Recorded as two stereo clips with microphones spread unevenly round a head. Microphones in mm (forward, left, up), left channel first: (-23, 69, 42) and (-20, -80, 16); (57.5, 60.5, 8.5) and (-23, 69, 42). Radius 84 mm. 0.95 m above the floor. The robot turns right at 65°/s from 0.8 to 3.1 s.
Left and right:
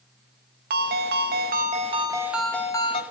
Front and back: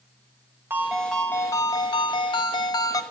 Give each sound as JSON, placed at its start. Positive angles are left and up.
{"t": 0.7, "sound": "a ringtone", "azimuth_deg": -110, "distance_m": 0.6}